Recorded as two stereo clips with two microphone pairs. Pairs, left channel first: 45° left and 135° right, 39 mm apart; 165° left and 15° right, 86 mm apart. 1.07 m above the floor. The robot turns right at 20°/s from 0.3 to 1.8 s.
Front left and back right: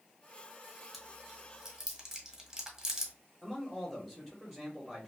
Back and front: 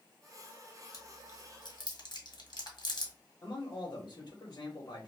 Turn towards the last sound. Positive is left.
turn(degrees=130)